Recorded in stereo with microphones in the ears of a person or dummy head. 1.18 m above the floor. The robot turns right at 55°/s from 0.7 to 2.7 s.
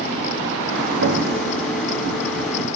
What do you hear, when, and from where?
1.0 s an explosion: 80° right, 1.3 m; by 1.8 s 40° right, 1.3 m